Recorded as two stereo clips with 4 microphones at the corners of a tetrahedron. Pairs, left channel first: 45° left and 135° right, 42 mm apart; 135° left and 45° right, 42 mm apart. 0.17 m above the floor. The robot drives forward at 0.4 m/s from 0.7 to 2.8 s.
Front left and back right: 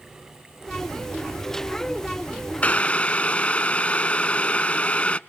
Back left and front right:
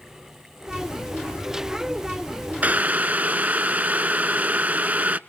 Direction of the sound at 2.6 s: 5° right.